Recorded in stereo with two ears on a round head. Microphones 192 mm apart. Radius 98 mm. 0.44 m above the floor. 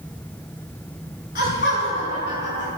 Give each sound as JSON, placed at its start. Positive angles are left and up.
{"t": 1.4, "sound": "laughter", "side_deg": 35, "distance_m": 3.5}